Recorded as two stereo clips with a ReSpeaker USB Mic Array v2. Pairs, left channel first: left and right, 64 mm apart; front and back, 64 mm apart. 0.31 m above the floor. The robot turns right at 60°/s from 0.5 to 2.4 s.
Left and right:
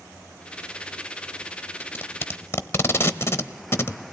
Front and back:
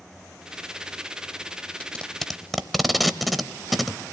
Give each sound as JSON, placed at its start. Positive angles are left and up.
{"t": 1.8, "sound": "tape being pulled", "azimuth_deg": 55, "distance_m": 0.8}